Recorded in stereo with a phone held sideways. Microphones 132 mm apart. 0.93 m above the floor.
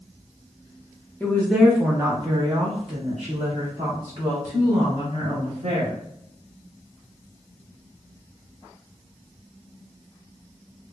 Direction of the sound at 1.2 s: 15° left (ahead or behind).